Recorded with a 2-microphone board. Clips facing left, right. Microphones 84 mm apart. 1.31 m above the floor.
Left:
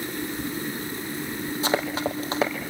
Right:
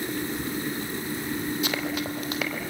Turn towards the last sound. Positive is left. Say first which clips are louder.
# left 4 dB
turn(degrees=30)  # may be behind; listen again after turning